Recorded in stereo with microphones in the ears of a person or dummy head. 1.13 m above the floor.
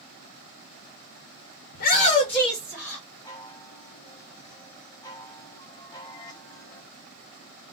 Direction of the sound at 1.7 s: 55° left (ahead or behind).